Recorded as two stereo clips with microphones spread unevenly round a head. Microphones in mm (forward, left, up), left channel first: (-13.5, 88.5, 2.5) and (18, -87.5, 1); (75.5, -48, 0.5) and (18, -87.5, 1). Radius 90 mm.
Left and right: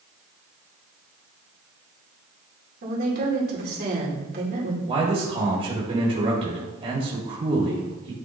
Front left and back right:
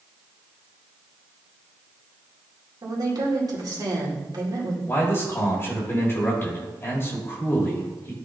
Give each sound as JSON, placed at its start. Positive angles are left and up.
{"t": 2.8, "sound": "a woman speaking", "azimuth_deg": -120, "distance_m": 2.5}
{"t": 4.9, "sound": "a man speaking", "azimuth_deg": -20, "distance_m": 1.7}